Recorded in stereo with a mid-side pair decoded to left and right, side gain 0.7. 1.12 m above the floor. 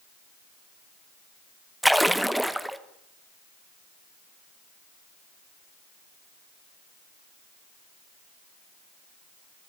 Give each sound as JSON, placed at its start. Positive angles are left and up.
{"t": 1.8, "sound": "a splash", "azimuth_deg": 0, "distance_m": 0.6}